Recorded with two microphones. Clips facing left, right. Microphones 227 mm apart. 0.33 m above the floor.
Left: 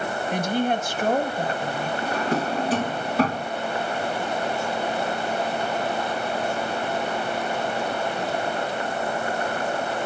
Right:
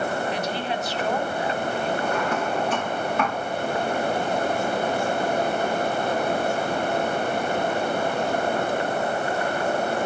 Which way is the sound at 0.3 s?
50° left (ahead or behind).